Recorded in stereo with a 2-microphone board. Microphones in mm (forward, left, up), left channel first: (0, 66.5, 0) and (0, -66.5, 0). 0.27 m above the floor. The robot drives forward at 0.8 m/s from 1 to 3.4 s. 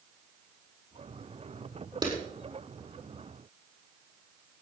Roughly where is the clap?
Right.